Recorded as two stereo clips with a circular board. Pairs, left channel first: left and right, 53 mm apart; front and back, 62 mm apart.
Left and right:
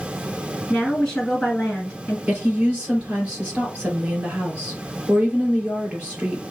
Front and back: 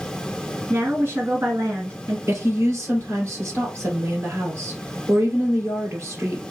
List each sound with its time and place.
0.7 s a woman speaking: 175° left, 1.9 m
2.3 s a woman speaking: 145° right, 2.5 m